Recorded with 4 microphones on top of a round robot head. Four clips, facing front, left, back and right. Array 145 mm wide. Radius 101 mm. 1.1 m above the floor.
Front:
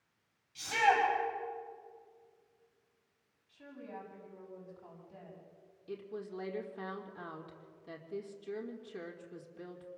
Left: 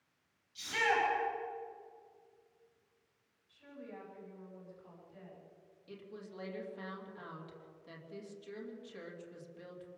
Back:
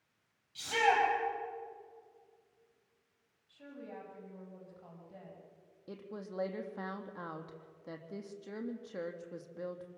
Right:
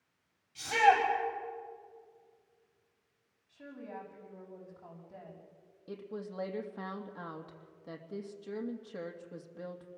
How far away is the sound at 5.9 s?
About 2.5 m.